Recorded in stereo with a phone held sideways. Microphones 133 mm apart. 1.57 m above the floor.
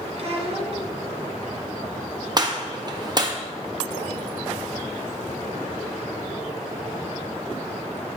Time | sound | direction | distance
0.2 | a child speaking | 50° right (ahead or behind) | 1.1 m
2.4 | a gunshot | 35° right (ahead or behind) | 0.6 m